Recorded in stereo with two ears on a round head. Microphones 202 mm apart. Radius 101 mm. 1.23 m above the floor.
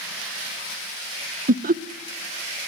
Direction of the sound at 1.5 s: 40° right (ahead or behind).